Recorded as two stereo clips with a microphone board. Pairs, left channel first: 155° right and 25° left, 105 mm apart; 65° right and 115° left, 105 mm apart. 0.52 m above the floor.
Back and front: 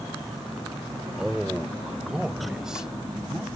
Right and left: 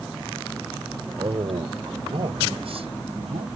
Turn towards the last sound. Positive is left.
turn(degrees=105)